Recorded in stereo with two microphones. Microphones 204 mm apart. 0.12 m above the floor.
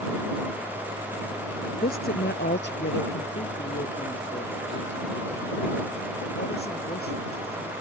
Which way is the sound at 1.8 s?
45° left (ahead or behind).